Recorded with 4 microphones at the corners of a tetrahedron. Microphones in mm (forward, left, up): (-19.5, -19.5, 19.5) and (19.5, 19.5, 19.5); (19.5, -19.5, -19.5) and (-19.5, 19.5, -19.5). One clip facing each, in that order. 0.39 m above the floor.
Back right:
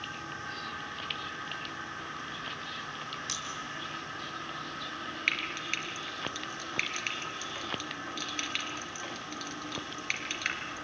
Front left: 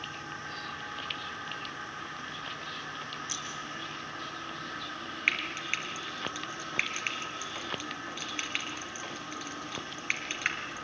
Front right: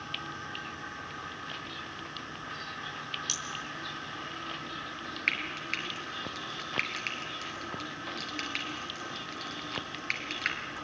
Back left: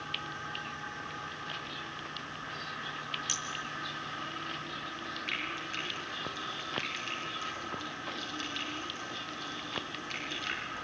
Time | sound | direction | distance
3.3 | scissors | 145° right | 4 m
5.3 | frying | 30° right | 3 m